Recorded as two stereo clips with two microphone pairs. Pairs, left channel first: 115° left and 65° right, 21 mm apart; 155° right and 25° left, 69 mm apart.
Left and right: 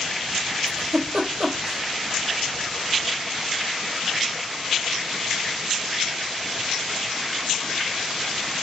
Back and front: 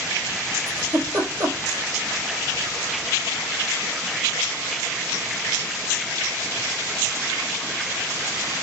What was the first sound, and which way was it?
A giggle, 35° right.